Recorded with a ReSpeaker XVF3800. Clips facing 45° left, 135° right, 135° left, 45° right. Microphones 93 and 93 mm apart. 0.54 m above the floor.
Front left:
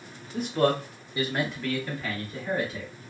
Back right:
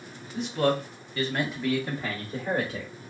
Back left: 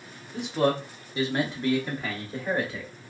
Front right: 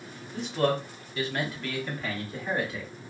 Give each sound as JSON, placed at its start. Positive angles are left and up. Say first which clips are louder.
{"t": 0.3, "sound": "a man speaking", "louder": "front left 1 dB, back left 2 dB", "azimuth_deg": 65, "distance_m": 1.0}